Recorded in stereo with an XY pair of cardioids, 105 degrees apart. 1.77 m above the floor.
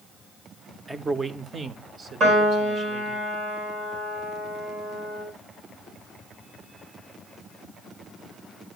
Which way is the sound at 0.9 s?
20° right.